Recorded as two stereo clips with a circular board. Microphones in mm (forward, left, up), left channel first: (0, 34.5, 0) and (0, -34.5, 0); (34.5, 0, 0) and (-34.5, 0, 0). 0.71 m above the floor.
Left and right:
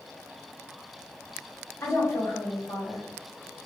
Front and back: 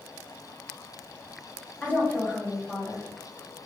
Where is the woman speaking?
60° left, 0.9 m.